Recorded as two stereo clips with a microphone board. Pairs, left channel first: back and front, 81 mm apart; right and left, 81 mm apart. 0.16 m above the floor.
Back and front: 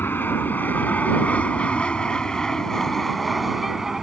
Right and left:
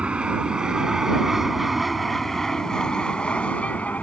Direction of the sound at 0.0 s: 155° left.